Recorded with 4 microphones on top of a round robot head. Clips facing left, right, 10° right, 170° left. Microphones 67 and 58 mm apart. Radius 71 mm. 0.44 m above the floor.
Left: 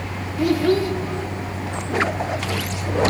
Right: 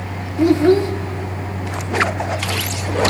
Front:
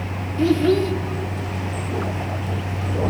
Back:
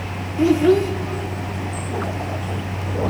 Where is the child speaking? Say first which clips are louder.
Right 5 dB, back 2 dB; 130° right, 0.5 m.